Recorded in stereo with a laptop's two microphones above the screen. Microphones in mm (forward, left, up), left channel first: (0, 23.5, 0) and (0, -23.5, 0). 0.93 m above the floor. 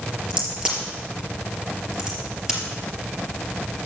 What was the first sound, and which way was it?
A crack, 15° right (ahead or behind).